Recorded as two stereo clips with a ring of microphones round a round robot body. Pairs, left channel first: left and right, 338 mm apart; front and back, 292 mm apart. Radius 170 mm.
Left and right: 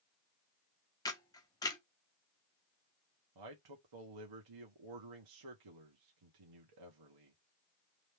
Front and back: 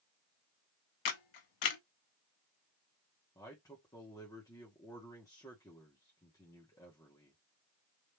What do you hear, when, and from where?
1.1 s a camera shutter: 10° left, 1.0 m
3.4 s a man speaking: 80° right, 1.1 m